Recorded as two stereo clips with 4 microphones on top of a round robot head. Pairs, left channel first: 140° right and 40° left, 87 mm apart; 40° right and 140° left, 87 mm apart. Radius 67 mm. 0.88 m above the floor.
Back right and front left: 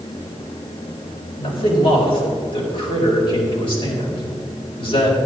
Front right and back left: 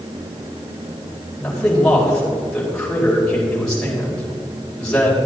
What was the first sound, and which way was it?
A man speaking, 120° right.